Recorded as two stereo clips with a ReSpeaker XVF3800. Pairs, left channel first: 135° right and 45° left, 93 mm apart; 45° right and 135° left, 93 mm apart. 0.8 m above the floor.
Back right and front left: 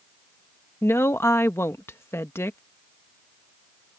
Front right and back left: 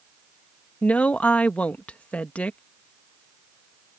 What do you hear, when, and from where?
0.8 s a woman speaking: 105° right